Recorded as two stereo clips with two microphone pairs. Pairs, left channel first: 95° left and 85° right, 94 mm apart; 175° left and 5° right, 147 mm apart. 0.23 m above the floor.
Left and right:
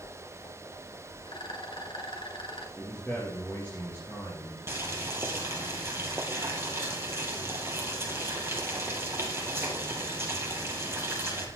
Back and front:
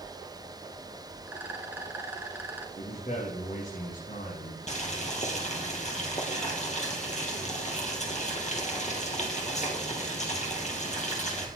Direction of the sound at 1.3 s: 70° left.